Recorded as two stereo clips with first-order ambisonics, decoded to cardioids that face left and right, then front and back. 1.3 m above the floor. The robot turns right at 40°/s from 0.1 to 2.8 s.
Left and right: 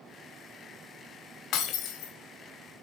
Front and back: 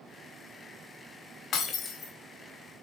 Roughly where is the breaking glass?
Ahead left.